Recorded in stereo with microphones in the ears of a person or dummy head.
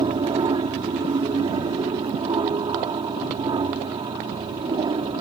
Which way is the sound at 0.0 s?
25° right (ahead or behind).